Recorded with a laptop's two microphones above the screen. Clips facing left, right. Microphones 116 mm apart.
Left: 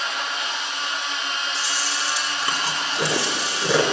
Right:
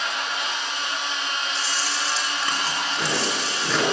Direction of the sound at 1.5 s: 10° left (ahead or behind).